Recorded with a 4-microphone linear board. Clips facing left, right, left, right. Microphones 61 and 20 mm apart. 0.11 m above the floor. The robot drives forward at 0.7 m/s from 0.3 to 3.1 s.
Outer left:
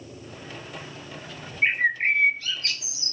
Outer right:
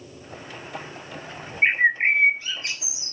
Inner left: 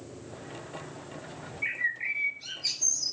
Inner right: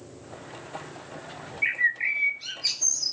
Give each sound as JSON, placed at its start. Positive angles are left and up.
{"t": 1.6, "sound": "a bird", "side_deg": -25, "distance_m": 0.9}